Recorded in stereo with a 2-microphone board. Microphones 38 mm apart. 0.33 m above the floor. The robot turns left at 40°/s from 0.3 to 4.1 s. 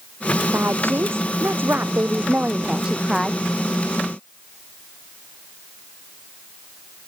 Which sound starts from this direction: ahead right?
A woman speaking, at 0.5 s.